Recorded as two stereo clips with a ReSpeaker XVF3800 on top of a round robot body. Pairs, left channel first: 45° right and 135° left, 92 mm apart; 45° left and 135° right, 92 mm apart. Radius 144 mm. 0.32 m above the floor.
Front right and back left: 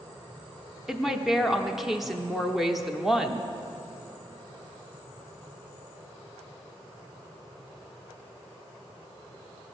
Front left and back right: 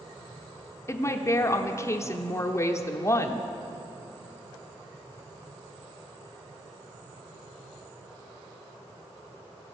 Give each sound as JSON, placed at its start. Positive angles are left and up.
{"t": 0.9, "sound": "a woman speaking", "azimuth_deg": 50, "distance_m": 0.9}